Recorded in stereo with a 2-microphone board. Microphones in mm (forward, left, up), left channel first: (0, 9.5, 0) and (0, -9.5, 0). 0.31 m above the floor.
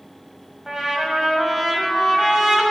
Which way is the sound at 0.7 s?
30° right (ahead or behind).